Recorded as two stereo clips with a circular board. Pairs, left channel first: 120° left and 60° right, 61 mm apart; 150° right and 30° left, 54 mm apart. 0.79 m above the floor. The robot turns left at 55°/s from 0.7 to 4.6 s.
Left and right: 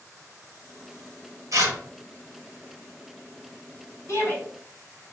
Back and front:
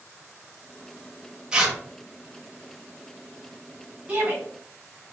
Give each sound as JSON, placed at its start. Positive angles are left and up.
{"t": 1.5, "sound": "tearing paper", "azimuth_deg": -40, "distance_m": 0.9}
{"t": 4.1, "sound": "a shout", "azimuth_deg": 100, "distance_m": 1.0}